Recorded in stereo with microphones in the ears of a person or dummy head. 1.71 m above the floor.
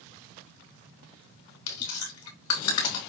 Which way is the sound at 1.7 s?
75° left (ahead or behind).